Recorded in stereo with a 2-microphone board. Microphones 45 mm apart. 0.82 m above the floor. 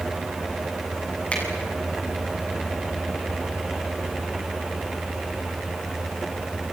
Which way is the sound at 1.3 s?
30° left (ahead or behind).